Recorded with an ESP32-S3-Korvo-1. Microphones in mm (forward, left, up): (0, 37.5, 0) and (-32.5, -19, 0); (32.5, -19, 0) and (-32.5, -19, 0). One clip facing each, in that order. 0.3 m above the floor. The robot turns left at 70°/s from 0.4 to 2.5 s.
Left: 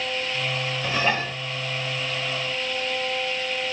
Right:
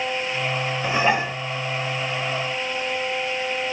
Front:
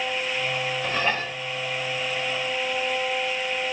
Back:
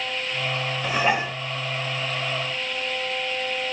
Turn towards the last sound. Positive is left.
turn(degrees=125)